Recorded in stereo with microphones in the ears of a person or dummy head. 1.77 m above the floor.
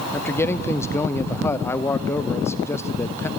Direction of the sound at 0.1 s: 10° left (ahead or behind).